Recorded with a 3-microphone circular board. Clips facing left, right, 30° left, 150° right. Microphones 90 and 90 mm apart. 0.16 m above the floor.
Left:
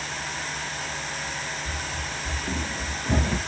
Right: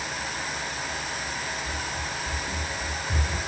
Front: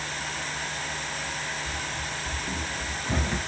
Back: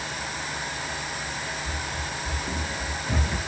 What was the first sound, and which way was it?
Running footsteps, 140° left.